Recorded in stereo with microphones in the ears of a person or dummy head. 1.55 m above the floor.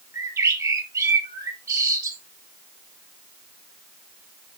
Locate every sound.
0.1 s a bird: 20° right (ahead or behind), 1.9 m